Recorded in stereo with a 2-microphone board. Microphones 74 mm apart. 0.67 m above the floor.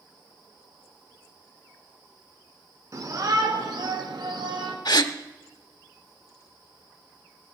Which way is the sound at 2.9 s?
45° right (ahead or behind).